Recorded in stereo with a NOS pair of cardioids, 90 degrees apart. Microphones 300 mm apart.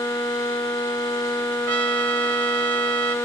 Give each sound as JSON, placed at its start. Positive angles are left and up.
{"t": 1.7, "sound": "a trumpet", "azimuth_deg": -50}